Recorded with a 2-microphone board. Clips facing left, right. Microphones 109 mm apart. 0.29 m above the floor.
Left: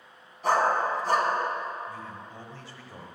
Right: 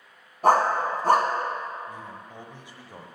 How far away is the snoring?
I don't hear snoring.